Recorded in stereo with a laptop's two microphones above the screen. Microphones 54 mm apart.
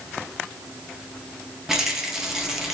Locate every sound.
1.7 s a rattle: 10° right (ahead or behind), 0.6 m